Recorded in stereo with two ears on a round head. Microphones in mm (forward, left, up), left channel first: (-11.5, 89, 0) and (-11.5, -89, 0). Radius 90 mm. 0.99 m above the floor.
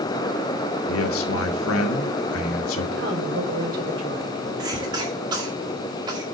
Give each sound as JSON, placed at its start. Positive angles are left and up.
{"t": 0.9, "sound": "a man speaking", "side_deg": 75, "distance_m": 1.5}
{"t": 3.0, "sound": "a woman speaking", "side_deg": -75, "distance_m": 4.5}
{"t": 4.6, "sound": "a cough", "side_deg": -25, "distance_m": 2.0}